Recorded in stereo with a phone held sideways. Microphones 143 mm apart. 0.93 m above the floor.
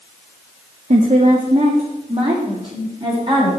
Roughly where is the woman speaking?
Right.